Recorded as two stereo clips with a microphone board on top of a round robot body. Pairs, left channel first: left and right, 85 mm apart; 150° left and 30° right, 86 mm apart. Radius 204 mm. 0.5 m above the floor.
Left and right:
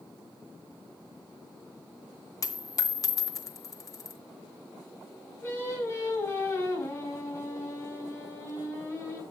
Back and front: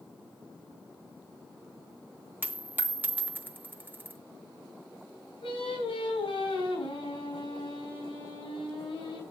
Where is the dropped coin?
40° left, 0.7 m.